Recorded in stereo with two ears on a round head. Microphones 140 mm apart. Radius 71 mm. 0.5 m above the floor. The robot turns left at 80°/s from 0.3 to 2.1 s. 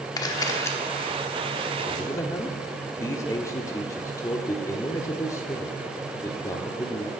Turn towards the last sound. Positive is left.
turn(degrees=20)  # may be behind; listen again after turning